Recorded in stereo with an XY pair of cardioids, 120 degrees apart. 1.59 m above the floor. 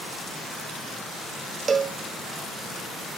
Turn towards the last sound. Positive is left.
turn(degrees=-30)